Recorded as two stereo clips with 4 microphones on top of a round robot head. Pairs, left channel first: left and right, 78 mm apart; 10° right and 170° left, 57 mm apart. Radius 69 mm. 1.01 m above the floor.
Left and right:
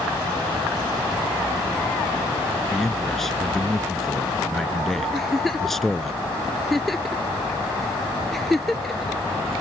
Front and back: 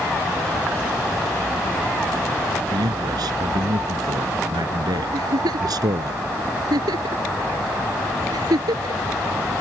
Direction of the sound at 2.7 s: Straight behind.